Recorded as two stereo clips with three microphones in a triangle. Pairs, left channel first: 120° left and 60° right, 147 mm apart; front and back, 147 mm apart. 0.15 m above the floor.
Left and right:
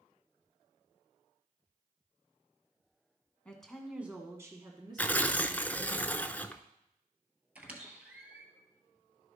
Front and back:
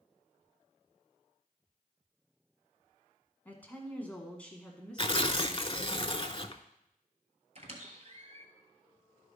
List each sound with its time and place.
3.5 s a woman speaking: 55° left, 1.3 m; by 6.0 s 85° right, 1.9 m
5.0 s tearing paper: 40° left, 0.5 m
7.5 s a squeak: 140° right, 1.4 m